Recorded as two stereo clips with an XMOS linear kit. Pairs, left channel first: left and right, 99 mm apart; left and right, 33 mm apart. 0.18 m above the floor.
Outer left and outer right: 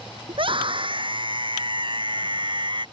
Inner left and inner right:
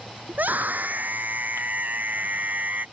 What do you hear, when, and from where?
0.3 s a scream: 60° right (ahead or behind); by 2.9 s 50° right (ahead or behind)